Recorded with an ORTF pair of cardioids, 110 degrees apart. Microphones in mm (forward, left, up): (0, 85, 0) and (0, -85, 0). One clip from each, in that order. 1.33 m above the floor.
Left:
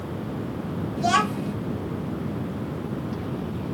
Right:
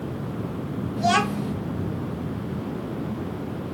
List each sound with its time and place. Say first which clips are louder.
1.0 s a child speaking: even; 5° right, 0.9 m